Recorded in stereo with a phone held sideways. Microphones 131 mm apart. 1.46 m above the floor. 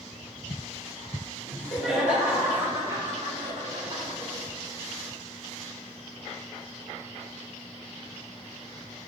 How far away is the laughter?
About 2.5 m.